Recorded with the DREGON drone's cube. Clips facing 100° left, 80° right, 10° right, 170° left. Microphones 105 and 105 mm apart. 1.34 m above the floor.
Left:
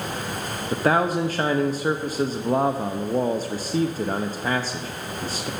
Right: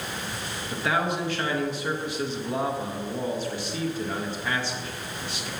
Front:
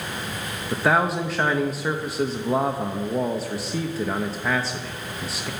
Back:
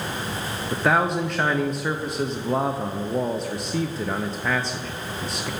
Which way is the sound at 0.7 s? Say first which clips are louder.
Left 6 dB, even; 75° left.